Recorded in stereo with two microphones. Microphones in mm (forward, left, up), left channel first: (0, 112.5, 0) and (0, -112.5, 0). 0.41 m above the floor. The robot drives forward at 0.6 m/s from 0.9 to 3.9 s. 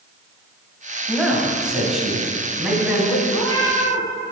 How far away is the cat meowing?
About 3.5 m.